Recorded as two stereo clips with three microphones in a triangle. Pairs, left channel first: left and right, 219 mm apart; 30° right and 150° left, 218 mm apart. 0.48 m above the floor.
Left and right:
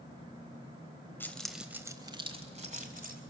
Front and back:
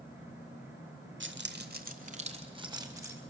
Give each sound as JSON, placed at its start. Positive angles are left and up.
{"t": 1.2, "sound": "keys jangling", "azimuth_deg": 170, "distance_m": 1.3}